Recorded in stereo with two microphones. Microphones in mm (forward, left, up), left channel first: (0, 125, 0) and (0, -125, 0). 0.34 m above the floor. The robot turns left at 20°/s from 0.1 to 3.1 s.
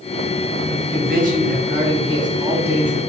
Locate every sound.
0.7 s a man speaking: 130° right, 3 m; by 3.0 s 175° right, 3 m